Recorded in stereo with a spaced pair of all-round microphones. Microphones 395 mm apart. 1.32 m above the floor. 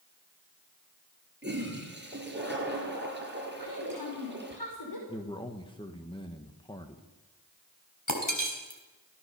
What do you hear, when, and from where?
1.4 s a toilet flushing: 25° right (ahead or behind), 5 m
3.6 s a woman speaking: 70° left (ahead or behind), 5 m
5.1 s a man speaking: 10° left (ahead or behind), 1.5 m
8.1 s breaking glass: 50° left (ahead or behind), 4 m